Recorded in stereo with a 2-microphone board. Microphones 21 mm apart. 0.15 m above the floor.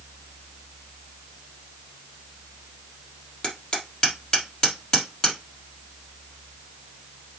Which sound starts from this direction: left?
Hammering, at 3.4 s.